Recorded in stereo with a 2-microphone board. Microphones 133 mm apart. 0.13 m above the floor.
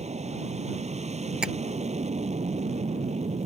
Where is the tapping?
5° right (ahead or behind).